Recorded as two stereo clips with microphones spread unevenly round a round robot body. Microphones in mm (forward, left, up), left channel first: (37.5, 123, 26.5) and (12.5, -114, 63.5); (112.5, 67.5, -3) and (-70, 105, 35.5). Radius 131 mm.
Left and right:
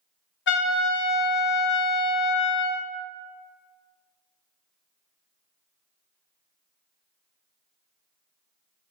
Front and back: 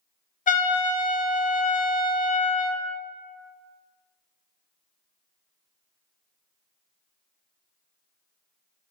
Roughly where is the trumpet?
Ahead left.